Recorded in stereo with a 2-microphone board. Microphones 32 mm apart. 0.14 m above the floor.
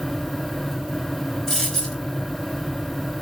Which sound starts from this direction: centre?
A dropped coin, at 1.5 s.